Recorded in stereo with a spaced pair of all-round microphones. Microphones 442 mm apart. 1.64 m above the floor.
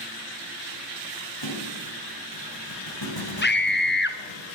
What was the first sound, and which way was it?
A thud, 70° left (ahead or behind).